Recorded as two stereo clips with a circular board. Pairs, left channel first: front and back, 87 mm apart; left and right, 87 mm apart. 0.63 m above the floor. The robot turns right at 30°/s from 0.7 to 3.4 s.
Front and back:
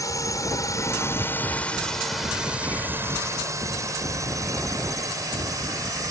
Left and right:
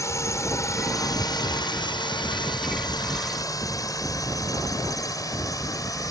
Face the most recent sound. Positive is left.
turn(degrees=135)